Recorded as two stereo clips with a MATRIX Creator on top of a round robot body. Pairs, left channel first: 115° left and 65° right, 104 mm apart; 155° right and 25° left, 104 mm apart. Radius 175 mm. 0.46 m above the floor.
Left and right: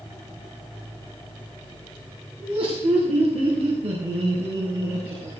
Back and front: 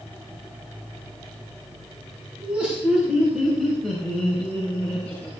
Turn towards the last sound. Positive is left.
turn(degrees=-85)